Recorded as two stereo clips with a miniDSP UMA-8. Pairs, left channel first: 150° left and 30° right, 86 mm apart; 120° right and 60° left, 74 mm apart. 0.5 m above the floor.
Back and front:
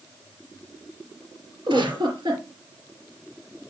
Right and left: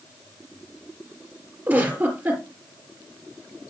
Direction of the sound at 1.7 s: 5° right.